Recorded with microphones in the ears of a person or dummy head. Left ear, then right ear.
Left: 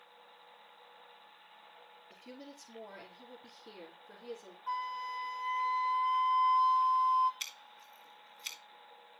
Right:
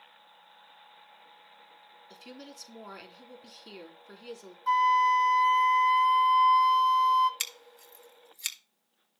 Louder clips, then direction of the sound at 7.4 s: Right 6 dB; 55° right (ahead or behind).